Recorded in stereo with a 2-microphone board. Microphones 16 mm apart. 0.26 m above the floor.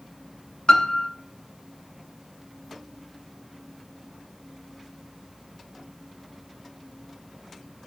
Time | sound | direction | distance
0.7 | a piano | 65° left (ahead or behind) | 1.0 m